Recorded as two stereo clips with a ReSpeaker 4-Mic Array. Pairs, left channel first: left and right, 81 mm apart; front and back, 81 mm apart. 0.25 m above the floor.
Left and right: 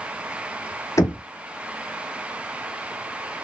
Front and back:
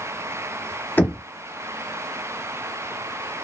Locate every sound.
1.0 s knocking: 60° left, 0.9 m